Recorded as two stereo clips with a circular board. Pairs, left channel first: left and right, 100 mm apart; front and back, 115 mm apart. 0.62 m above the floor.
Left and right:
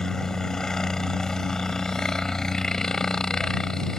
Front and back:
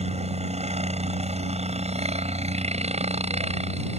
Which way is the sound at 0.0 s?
175° left.